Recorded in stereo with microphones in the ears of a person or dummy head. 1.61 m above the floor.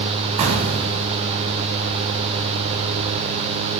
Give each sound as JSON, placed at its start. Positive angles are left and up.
{"t": 0.4, "sound": "an explosion", "side_deg": -35, "distance_m": 1.1}